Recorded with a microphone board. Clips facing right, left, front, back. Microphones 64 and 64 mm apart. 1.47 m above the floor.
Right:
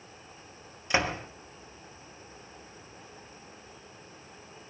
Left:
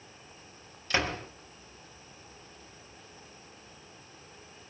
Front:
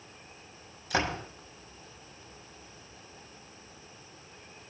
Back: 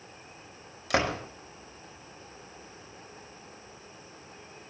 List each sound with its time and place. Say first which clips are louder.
0.9 s a door slam: right 2 dB, back 3 dB; 160° right, 5 m